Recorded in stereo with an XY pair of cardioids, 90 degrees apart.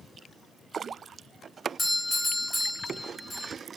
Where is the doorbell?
20° left, 1.6 m.